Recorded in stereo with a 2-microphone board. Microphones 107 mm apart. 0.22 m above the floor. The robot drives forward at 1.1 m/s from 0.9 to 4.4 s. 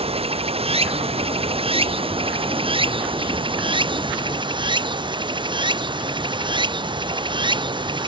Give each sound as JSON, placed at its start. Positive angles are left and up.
{"t": 0.0, "sound": "running water", "side_deg": -75}